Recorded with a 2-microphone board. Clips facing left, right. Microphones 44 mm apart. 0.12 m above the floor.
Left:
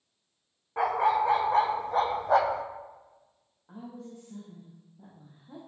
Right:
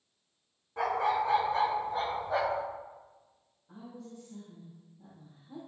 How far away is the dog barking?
About 2.5 m.